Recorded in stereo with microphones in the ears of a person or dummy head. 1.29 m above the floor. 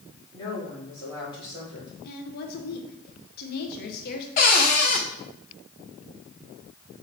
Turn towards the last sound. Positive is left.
turn(degrees=25)  # may be behind; listen again after turning